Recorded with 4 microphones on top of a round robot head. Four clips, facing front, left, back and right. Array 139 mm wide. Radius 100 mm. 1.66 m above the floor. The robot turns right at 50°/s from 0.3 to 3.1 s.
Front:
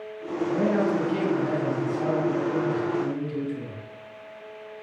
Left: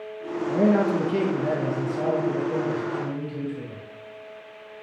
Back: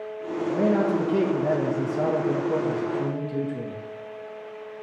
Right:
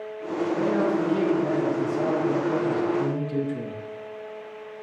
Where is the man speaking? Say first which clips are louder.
Left 3 dB, back 2 dB; 95° left, 1.9 m; by 3.8 s 135° right, 1.9 m.